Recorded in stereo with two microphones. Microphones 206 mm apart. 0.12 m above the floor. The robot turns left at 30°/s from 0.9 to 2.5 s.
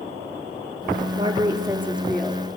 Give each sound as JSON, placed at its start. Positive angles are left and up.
{"t": 1.1, "sound": "a woman speaking", "azimuth_deg": -150, "distance_m": 3.0}